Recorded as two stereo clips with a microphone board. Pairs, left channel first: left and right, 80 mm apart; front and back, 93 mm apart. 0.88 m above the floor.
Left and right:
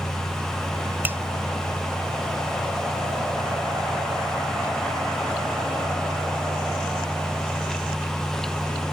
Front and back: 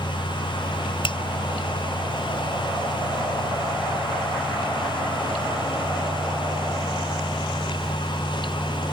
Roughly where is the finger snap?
Ahead right.